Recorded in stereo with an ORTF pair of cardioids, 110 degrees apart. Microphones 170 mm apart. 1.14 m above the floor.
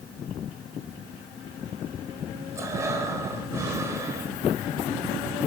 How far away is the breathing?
About 3.5 m.